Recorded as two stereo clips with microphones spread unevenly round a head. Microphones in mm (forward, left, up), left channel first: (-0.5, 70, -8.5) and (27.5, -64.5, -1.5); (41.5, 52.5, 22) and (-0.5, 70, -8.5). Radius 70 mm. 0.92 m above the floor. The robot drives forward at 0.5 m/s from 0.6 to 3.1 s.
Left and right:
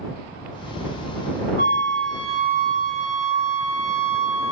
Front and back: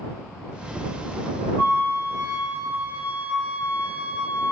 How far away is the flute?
About 0.5 m.